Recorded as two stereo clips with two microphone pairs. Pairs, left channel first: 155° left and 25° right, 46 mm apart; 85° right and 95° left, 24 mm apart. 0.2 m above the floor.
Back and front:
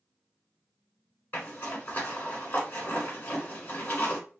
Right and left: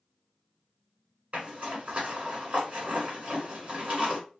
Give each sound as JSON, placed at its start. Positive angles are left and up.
{"t": 1.3, "sound": "a zipper", "azimuth_deg": 120, "distance_m": 1.5}